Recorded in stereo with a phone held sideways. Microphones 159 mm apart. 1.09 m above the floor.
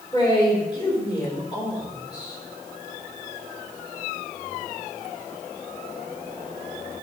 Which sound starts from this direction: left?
A man speaking, at 0.1 s.